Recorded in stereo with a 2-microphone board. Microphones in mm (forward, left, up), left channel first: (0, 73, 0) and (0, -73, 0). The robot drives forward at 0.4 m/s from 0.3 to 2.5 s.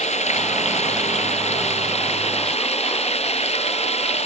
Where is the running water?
45° left (ahead or behind); by 4.2 s 40° left (ahead or behind).